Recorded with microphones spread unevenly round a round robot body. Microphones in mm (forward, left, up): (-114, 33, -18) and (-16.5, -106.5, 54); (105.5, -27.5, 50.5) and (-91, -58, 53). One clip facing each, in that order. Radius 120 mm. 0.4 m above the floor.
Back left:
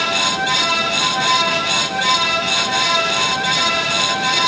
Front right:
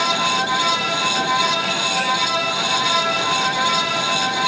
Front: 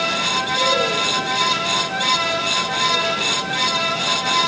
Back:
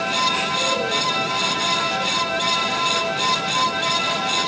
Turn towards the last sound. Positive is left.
No sound to turn to.